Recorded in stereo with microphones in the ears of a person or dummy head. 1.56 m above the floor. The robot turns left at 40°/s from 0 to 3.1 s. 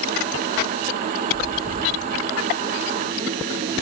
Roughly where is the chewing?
Centre.